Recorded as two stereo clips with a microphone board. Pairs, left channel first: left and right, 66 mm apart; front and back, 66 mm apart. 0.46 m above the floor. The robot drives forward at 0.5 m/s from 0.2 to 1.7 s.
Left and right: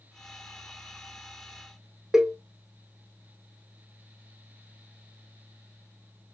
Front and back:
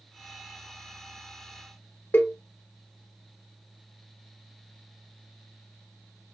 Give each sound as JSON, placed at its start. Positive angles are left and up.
{"t": 2.1, "sound": "a cowbell", "azimuth_deg": -15, "distance_m": 0.9}